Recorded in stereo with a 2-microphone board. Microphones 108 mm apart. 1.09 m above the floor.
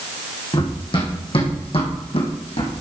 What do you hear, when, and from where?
0.5 s running footsteps: 50° left (ahead or behind), 4 m; by 2.7 s 70° left (ahead or behind), 3 m